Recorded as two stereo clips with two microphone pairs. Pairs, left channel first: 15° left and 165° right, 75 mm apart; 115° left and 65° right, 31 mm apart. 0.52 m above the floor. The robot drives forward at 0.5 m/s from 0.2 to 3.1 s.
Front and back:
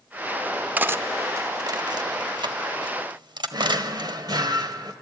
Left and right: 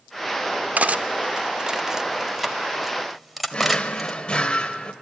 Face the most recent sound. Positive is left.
turn(degrees=170)